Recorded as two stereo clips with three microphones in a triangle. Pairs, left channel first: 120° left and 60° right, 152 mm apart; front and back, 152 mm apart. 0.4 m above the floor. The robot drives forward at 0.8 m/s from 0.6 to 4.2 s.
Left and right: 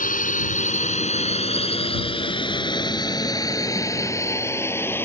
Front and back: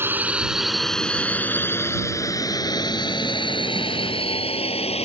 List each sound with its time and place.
0.0 s a drone: 105° left; by 5.1 s 45° left